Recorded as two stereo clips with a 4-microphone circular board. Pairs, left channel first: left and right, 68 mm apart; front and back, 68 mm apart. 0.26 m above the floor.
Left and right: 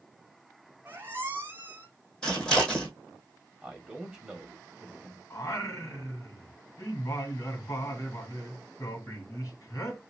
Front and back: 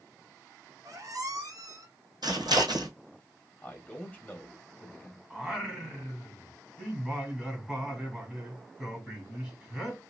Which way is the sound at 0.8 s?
150° right.